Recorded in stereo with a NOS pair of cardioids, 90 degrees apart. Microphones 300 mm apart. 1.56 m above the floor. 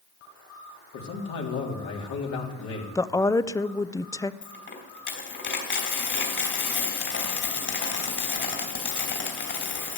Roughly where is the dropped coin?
Ahead left.